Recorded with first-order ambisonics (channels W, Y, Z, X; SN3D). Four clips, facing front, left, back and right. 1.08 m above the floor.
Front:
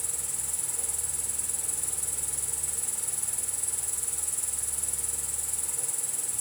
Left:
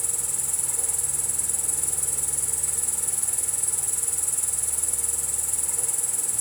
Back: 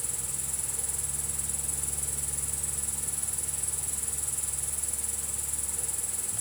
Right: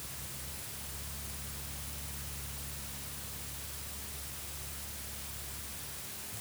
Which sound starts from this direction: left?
An insect, at 0.0 s.